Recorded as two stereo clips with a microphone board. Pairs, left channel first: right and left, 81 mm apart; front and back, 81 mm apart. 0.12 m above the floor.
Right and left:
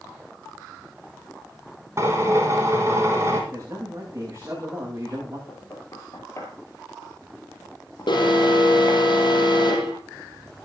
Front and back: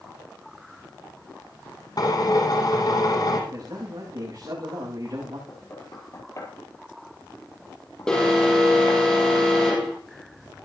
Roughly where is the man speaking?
Behind left.